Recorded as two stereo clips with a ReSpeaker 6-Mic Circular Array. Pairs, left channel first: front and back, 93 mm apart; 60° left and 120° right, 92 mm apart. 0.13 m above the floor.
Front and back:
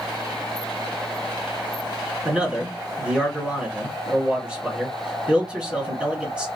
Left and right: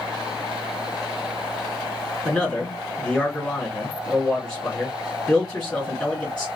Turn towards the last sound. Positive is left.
turn(degrees=125)